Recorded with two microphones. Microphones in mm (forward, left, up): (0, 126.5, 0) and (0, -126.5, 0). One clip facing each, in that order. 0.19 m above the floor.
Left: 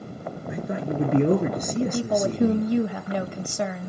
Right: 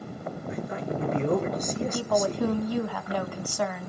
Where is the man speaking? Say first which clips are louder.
Left 4 dB; 65° left (ahead or behind), 4 m.